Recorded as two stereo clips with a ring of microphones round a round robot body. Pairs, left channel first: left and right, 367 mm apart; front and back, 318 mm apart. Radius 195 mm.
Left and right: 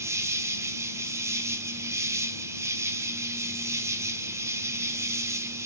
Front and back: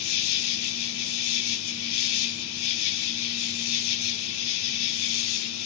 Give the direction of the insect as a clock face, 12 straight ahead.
12 o'clock.